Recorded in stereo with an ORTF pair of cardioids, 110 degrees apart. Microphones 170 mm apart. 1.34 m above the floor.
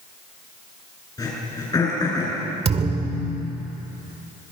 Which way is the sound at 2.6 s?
40° right.